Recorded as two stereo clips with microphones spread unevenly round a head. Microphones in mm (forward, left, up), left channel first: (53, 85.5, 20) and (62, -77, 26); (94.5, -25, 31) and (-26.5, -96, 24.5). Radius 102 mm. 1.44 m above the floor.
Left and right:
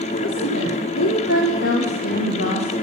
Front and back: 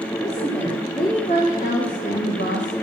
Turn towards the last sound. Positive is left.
turn(degrees=65)